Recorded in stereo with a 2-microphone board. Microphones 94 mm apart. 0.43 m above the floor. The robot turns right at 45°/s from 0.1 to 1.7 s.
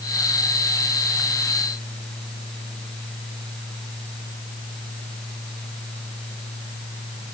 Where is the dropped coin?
No dropped coin in this recording.